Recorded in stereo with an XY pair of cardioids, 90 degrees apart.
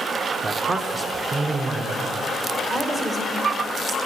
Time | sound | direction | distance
0.4 | a man speaking | 35° right | 1.0 m
2.7 | a woman speaking | 40° right | 2 m